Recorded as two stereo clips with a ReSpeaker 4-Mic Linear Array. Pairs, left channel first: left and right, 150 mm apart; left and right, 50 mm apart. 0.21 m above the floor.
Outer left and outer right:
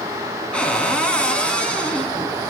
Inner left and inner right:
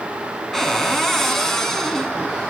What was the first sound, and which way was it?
A cupboard door, 10° left (ahead or behind).